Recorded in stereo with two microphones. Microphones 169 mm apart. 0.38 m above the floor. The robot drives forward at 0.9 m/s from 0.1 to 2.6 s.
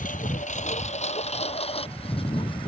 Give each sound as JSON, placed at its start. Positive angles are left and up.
{"t": 0.0, "sound": "a lawn mower", "side_deg": 55}